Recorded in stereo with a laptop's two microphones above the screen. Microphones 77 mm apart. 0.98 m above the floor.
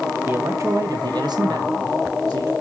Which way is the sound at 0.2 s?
30° right (ahead or behind).